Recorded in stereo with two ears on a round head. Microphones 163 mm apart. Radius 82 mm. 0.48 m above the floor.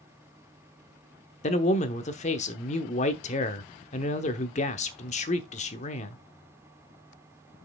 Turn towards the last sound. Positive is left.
turn(degrees=40)  # may be behind; listen again after turning